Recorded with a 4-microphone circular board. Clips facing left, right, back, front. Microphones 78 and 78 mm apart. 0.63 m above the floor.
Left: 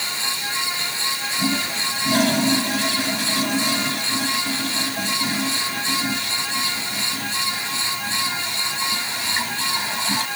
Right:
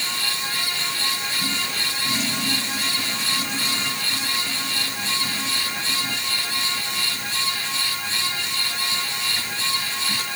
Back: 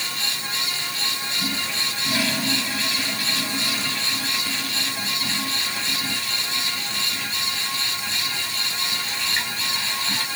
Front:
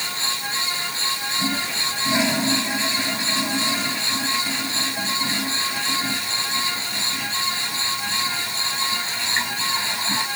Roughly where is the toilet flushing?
Ahead left.